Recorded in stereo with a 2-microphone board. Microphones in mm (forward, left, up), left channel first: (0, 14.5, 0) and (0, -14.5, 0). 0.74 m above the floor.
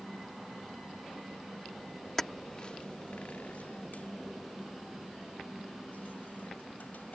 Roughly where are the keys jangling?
Centre.